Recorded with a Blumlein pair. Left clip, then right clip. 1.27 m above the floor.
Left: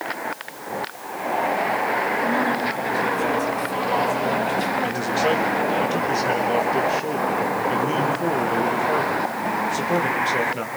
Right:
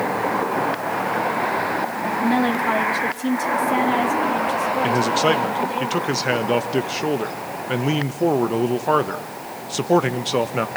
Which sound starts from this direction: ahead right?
A woman speaking, at 2.2 s.